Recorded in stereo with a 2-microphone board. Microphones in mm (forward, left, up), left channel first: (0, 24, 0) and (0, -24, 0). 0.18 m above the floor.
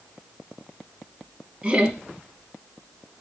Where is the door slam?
I don't hear a door slam.